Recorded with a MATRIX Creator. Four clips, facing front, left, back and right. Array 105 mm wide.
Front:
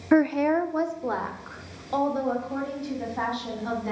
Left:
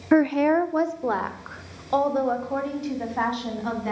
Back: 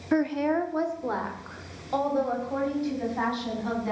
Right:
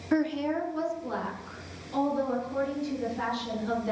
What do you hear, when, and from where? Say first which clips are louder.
0.1 s a woman speaking: left 8 dB, front 4 dB; 55° left, 0.7 m; by 3.9 s 90° left, 5 m